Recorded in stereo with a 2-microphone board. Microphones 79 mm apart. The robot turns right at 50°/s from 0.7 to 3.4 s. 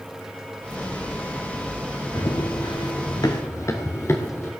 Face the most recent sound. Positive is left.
turn(degrees=25)  # may be behind; listen again after turning